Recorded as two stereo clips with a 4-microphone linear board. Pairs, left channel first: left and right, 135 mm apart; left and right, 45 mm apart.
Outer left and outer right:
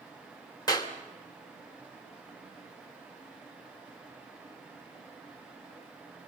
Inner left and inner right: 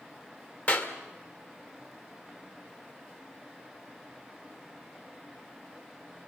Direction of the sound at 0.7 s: 25° left (ahead or behind).